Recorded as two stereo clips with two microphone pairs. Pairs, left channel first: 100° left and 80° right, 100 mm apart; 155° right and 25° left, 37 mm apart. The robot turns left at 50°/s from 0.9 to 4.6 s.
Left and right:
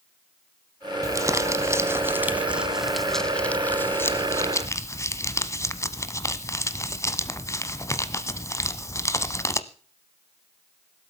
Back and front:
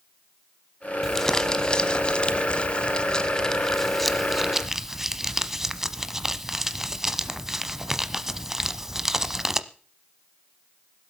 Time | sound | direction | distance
1.0 | crumpling | 80° right | 0.8 m